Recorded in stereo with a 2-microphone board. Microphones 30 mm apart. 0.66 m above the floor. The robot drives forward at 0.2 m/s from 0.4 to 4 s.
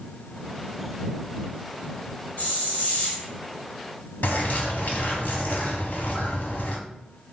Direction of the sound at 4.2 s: 65° left (ahead or behind).